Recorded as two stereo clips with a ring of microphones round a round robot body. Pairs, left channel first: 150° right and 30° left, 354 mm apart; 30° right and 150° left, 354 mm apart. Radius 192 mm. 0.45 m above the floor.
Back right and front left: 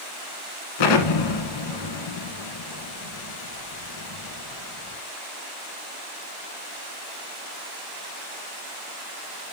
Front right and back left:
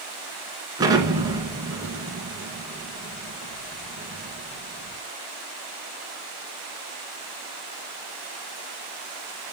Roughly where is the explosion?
Behind right.